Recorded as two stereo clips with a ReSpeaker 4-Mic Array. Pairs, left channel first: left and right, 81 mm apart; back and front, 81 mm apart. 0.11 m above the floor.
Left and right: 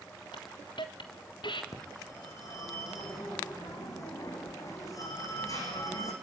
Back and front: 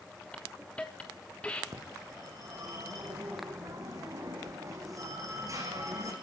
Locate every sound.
0.3 s a hiss: 105° left, 3 m
1.7 s a phone ringing: 45° left, 5.5 m